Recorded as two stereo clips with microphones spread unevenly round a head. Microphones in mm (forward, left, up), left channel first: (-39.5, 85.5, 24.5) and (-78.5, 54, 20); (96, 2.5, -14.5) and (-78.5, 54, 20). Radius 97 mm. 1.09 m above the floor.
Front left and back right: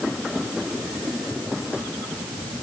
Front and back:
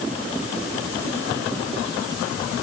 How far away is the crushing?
No crushing in this recording.